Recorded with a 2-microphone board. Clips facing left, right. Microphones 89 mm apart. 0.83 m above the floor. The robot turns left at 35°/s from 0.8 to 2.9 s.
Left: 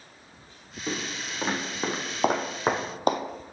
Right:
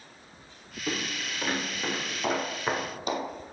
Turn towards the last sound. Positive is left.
turn(degrees=50)  # may be behind; listen again after turning